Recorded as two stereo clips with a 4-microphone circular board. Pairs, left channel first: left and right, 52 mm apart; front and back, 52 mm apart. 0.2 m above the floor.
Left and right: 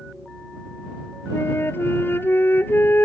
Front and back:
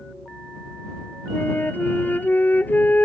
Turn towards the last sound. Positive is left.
turn(degrees=50)